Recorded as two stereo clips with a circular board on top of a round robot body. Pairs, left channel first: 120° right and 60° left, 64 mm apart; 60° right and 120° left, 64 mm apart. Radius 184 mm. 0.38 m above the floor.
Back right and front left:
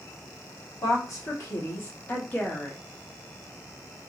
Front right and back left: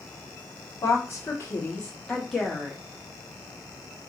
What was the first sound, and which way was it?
A woman speaking, 100° right.